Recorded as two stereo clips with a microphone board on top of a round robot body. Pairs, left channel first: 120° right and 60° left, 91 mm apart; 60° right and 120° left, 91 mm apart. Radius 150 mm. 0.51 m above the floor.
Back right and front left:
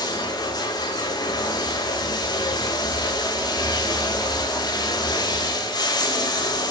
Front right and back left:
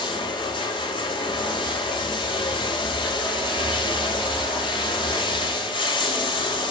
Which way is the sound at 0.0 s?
80° right.